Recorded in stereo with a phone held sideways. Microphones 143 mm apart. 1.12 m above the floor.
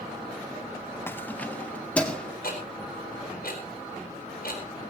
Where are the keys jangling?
15° left (ahead or behind), 0.7 m; by 2.3 s 5° left (ahead or behind), 2.5 m.